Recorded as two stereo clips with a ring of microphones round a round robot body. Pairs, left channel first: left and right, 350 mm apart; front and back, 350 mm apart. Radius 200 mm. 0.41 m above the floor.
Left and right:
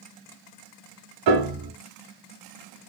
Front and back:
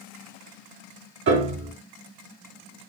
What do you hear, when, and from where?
1.3 s a piano: 120° right, 0.7 m